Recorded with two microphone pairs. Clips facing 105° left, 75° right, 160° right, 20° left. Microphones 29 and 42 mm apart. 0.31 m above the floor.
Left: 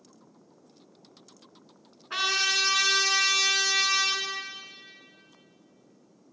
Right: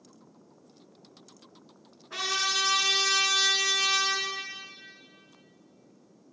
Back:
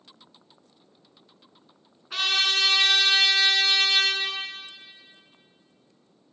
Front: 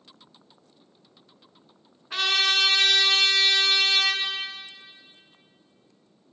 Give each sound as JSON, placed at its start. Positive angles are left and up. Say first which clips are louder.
{"t": 2.1, "sound": "a trumpet", "louder": "left 3 dB, front 1 dB", "azimuth_deg": 105, "distance_m": 1.9}